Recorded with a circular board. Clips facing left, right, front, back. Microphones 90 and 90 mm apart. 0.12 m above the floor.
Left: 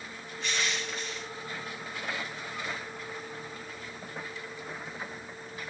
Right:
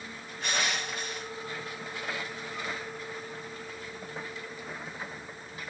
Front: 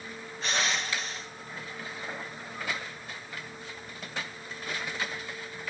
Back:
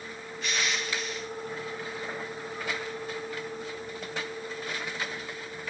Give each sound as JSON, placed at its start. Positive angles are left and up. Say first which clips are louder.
{"t": 0.4, "sound": "crushing", "louder": "right 2 dB, front 1 dB", "azimuth_deg": -55, "distance_m": 2.0}